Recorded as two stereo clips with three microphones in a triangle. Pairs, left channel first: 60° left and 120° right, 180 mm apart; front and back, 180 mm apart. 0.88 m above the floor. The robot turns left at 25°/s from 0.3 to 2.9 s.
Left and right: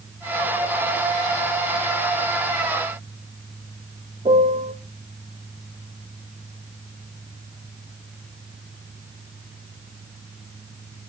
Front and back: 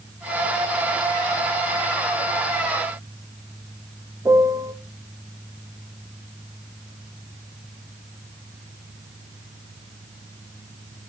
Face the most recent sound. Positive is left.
turn(degrees=-120)